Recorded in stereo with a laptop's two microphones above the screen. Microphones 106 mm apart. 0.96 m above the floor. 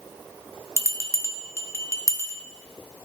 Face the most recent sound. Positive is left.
turn(degrees=30)  # may be behind; listen again after turning